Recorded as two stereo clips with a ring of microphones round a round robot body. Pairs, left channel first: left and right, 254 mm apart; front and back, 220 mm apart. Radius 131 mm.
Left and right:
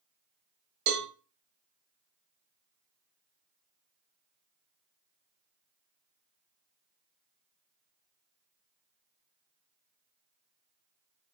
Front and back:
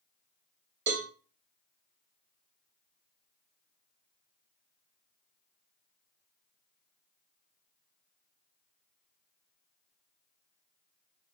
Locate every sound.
0.9 s a cowbell: 130° right, 0.8 m